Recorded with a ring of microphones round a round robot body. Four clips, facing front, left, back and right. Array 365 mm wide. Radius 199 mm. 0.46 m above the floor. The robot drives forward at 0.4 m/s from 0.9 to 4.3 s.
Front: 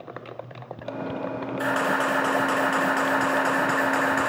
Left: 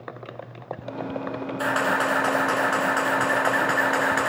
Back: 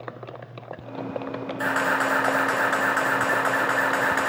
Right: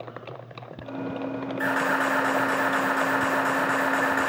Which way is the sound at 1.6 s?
90° left.